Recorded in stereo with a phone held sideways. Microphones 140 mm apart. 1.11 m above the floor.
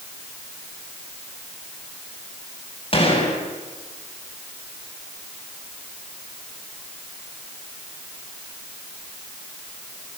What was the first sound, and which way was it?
A gunshot, 40° left (ahead or behind).